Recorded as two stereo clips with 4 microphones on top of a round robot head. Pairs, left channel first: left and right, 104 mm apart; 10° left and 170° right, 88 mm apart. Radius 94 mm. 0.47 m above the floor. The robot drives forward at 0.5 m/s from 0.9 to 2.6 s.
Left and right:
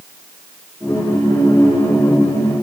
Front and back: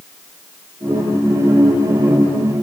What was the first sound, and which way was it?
Only background noise.